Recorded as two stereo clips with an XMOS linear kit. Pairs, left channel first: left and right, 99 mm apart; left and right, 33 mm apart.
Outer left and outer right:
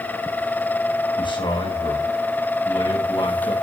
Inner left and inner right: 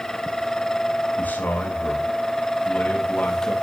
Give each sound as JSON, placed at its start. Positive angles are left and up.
{"t": 1.2, "sound": "a man speaking", "side_deg": 60, "distance_m": 5.0}